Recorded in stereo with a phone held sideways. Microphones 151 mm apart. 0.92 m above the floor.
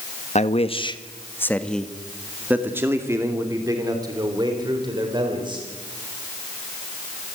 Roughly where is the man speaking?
Left.